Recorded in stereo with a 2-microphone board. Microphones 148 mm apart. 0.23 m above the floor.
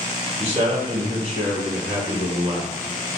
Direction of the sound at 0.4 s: 40° right (ahead or behind).